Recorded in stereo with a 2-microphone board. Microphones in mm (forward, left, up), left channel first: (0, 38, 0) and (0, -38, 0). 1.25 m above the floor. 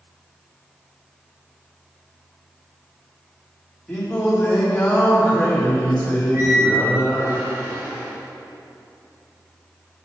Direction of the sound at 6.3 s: 40° right (ahead or behind).